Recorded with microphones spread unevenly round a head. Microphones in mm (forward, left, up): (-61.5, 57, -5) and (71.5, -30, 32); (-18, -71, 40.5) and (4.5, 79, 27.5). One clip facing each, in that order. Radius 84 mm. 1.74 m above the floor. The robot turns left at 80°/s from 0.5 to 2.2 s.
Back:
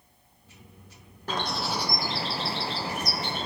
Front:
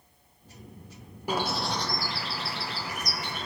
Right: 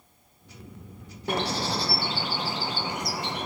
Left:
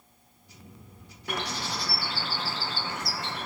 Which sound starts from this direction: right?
A bird, at 1.3 s.